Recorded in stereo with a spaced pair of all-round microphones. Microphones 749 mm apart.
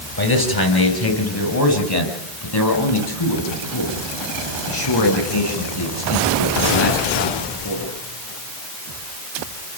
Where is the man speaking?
30° left (ahead or behind), 7 m; by 7.9 s 35° left (ahead or behind), 16 m.